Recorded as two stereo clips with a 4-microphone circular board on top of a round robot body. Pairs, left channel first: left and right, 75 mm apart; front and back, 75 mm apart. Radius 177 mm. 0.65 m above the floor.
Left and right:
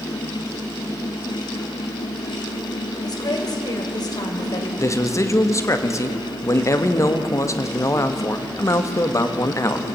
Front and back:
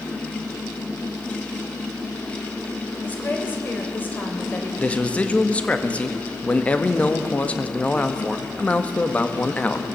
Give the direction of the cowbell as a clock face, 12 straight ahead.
No cowbell in this recording.